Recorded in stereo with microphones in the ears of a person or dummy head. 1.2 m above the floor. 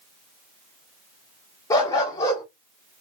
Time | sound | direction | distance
1.7 | a dog barking | 25° left (ahead or behind) | 1.2 m